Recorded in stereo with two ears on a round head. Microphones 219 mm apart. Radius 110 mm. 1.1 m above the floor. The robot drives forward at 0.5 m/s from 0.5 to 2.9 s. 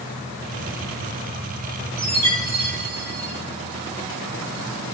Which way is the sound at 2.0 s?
70° right (ahead or behind).